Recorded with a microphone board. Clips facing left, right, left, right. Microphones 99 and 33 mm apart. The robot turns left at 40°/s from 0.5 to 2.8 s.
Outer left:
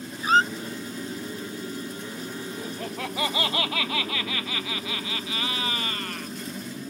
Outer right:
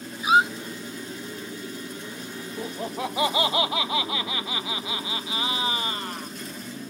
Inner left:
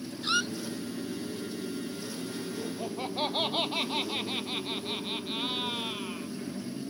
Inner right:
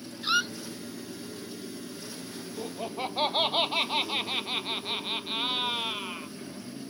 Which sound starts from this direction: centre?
A squeak, at 0.2 s.